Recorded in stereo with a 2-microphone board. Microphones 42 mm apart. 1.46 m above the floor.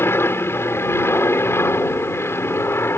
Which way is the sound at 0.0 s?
70° left (ahead or behind).